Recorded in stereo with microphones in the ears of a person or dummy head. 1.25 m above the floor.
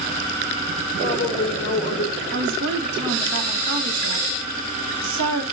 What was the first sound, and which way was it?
A woman speaking, 30° left (ahead or behind).